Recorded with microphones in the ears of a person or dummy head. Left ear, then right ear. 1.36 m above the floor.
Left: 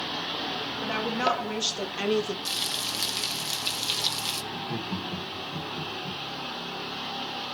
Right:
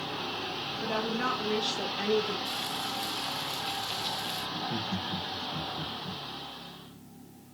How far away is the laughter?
About 4.5 m.